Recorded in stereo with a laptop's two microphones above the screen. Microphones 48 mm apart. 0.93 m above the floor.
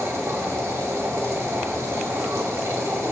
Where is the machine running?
75° right (ahead or behind), 1.2 m.